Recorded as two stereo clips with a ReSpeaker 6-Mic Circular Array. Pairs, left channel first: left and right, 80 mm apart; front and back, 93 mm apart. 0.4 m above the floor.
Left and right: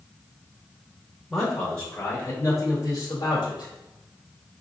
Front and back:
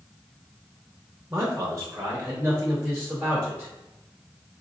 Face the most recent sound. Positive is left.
turn(degrees=100)